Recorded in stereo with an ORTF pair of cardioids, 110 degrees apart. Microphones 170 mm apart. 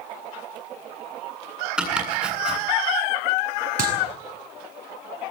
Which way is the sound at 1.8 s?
5° right.